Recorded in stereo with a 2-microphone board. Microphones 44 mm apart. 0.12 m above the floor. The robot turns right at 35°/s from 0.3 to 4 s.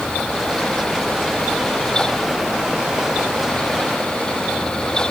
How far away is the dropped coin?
No dropped coin in this recording.